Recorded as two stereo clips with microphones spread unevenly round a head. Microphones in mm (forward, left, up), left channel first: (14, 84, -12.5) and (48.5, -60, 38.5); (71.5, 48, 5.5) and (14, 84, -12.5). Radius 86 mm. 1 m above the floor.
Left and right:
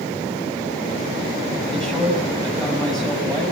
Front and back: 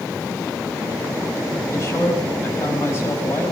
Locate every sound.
1.7 s a man speaking: 20° left, 6.5 m